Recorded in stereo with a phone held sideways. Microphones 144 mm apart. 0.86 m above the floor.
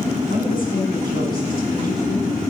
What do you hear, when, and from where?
0.3 s a woman speaking: 85° left, 6.5 m